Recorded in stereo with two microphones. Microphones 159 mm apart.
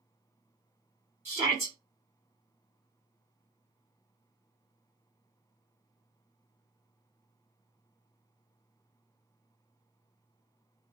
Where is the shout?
15° right (ahead or behind), 1.6 m.